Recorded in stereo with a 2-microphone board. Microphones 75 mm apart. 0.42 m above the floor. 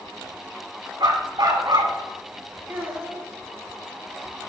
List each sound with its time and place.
1.0 s a dog barking: 70° right (ahead or behind), 1.5 m
2.7 s a child speaking: 30° right (ahead or behind), 2.5 m